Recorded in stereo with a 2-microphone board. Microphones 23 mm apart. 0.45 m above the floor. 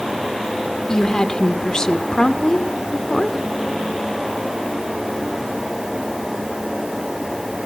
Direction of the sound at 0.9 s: 30° left (ahead or behind).